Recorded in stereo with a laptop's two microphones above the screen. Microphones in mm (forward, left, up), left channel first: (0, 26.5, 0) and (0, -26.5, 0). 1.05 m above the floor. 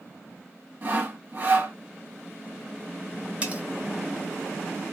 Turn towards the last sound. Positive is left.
turn(degrees=-25)  # may be behind; listen again after turning